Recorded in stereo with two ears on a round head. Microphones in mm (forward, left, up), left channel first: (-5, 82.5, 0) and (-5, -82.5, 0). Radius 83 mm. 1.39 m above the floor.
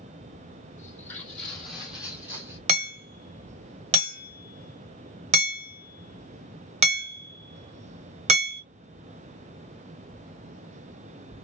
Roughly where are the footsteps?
Centre.